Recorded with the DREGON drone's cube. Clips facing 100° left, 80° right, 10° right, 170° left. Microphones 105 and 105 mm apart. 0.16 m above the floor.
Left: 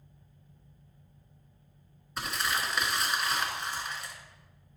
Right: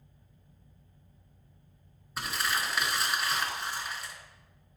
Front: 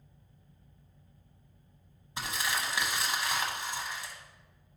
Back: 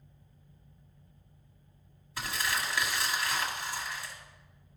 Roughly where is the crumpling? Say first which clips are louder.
Even, even; ahead.